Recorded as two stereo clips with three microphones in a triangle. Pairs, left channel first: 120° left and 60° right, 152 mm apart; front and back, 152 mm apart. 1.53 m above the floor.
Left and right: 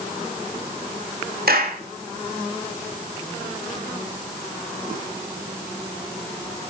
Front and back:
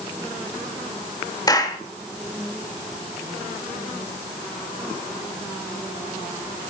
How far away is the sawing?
No sawing in this recording.